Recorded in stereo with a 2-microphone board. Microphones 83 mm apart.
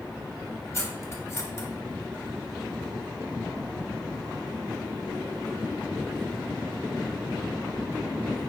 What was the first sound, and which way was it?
Cutlery clinking, 35° left (ahead or behind).